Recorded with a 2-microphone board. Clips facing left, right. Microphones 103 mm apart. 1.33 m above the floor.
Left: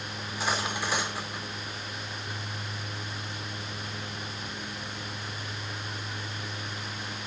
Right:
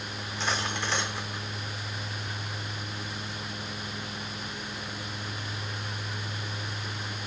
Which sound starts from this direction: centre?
Cutlery clinking, at 0.2 s.